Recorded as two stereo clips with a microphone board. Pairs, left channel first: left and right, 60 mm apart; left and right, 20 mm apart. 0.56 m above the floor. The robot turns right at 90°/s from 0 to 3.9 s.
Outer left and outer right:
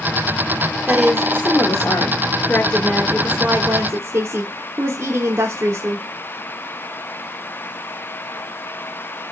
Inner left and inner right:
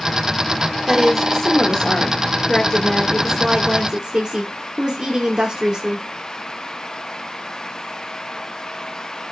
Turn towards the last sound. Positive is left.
turn(degrees=-100)